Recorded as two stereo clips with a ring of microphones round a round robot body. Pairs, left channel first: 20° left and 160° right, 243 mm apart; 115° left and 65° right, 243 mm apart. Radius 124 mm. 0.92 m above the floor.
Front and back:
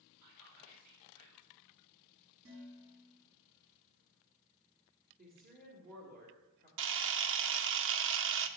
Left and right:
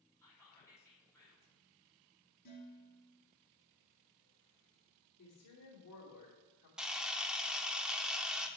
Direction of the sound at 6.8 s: 155° right.